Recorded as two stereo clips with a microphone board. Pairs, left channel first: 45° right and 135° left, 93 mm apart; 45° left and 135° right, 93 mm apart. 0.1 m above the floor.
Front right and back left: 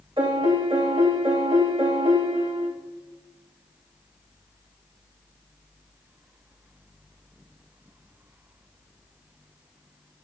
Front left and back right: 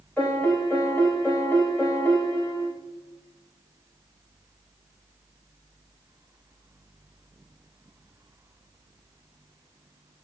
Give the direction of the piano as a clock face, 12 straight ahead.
8 o'clock.